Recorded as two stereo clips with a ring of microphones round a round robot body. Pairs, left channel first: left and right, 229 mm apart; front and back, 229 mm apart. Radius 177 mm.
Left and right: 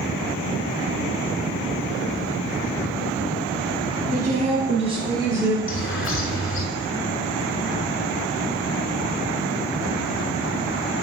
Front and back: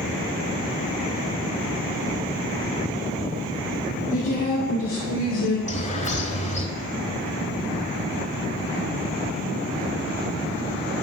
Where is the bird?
60° left, 1.6 m.